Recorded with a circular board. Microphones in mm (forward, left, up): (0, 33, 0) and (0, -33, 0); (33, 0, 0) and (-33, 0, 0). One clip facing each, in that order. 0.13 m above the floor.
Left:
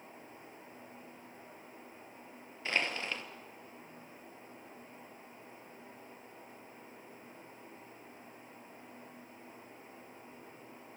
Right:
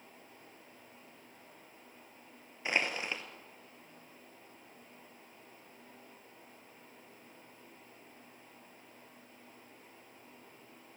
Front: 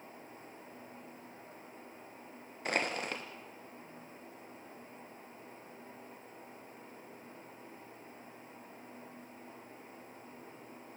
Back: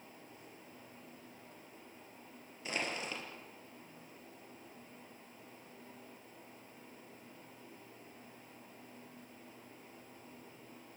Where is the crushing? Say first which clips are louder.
Right 1 dB, front 5 dB; 20° right, 2.5 m.